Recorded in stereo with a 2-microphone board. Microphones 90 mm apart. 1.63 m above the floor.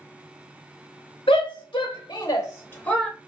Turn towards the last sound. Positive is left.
turn(degrees=5)  # may be behind; listen again after turning